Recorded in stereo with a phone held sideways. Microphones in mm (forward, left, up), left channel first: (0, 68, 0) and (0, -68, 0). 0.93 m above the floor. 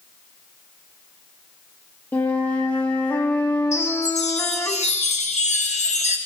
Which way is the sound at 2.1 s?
15° left (ahead or behind).